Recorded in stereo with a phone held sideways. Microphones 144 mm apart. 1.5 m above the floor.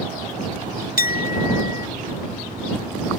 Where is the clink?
75° left (ahead or behind).